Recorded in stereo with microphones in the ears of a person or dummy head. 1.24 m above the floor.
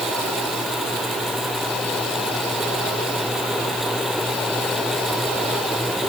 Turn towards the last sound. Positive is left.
No sound to turn to.